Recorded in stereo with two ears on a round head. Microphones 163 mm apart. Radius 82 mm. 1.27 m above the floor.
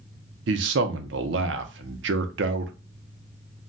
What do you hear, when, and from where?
0.5 s a man speaking: 70° right (ahead or behind), 0.6 m